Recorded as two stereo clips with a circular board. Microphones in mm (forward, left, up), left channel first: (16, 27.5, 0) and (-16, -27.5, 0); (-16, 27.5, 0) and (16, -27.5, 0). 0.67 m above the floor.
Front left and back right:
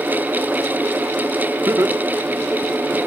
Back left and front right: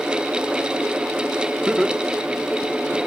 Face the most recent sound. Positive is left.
turn(degrees=170)